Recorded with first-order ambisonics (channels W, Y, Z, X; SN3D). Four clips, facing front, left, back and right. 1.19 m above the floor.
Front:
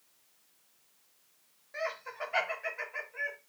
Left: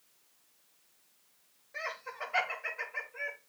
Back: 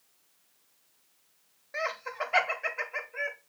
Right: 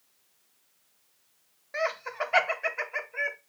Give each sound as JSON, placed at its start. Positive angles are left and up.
{"t": 1.7, "sound": "laughter", "azimuth_deg": -115, "distance_m": 0.9}